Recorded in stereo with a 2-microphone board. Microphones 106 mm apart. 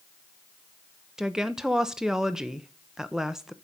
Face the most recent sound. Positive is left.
turn(degrees=-5)  # may be behind; listen again after turning